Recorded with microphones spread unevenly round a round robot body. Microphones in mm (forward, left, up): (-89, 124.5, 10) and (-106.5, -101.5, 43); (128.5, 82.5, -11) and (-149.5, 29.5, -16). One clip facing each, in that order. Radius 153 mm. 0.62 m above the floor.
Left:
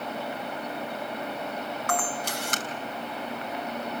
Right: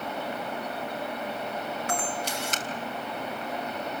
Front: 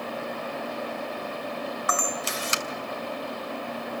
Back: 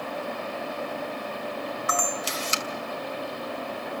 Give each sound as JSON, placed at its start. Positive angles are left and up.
{"t": 1.9, "sound": "a camera shutter", "azimuth_deg": 40, "distance_m": 2.5}